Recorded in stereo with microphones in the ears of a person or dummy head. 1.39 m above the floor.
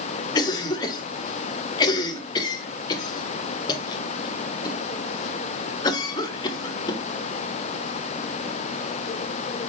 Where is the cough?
20° left (ahead or behind), 0.8 m.